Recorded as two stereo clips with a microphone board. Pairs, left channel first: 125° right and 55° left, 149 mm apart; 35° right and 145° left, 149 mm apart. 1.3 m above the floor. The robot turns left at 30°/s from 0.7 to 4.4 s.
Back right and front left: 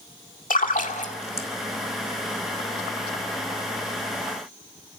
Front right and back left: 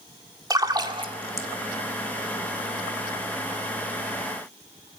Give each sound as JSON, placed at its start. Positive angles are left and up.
{"t": 0.5, "sound": "a splash", "azimuth_deg": -150, "distance_m": 2.0}